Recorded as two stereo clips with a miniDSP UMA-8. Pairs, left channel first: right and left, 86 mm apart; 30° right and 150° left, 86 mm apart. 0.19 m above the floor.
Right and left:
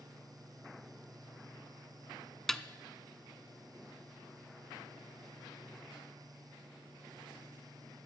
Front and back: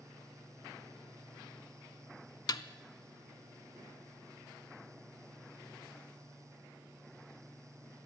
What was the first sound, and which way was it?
A snare drum, 5° right.